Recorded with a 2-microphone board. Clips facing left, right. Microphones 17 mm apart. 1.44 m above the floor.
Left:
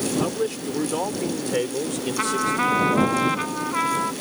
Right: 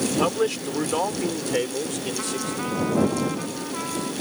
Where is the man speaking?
35° right (ahead or behind); by 3.2 s 15° left (ahead or behind).